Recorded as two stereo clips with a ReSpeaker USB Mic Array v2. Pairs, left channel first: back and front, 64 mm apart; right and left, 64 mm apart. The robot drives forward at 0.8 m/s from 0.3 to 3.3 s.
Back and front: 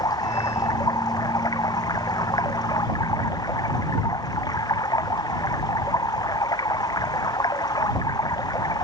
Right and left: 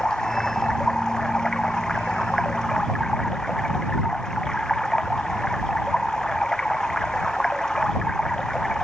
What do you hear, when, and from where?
0.0 s running water: 170° right